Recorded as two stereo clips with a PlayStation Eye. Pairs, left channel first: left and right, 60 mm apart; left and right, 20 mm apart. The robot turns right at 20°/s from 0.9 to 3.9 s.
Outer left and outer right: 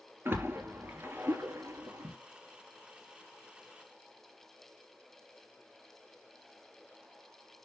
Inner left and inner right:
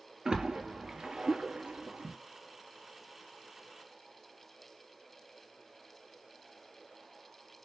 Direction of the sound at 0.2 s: 40° right (ahead or behind).